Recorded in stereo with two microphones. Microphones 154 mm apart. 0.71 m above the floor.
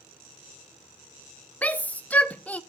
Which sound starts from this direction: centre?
A shout, at 1.6 s.